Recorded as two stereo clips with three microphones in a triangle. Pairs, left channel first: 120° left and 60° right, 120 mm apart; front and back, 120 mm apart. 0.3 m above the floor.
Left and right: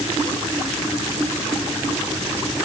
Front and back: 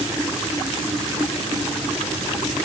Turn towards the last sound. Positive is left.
No sound to turn to.